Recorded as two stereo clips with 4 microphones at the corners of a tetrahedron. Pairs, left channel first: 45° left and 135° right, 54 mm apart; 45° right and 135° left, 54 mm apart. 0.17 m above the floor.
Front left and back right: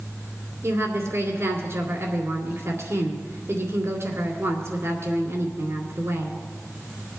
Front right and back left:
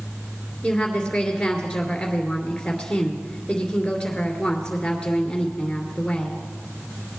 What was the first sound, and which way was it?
A woman speaking, 120° right.